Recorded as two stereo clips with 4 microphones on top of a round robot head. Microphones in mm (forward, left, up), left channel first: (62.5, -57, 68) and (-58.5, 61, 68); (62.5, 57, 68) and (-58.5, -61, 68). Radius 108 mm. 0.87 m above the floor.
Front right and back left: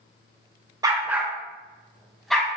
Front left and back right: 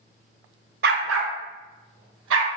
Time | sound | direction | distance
0.8 | a dog barking | 160° right | 0.6 m